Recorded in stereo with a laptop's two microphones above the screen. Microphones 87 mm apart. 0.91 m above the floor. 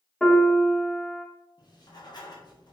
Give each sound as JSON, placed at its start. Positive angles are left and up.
{"t": 0.2, "sound": "a piano", "side_deg": 10, "distance_m": 0.7}
{"t": 1.6, "sound": "writing", "side_deg": 55, "distance_m": 0.6}